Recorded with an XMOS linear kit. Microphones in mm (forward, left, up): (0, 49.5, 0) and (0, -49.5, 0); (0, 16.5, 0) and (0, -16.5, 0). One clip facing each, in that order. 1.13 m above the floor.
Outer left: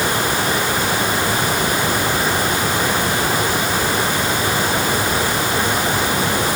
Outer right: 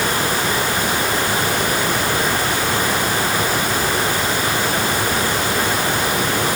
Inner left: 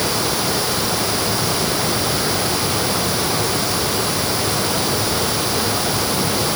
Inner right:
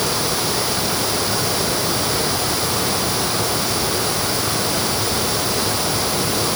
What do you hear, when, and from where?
Only background noise.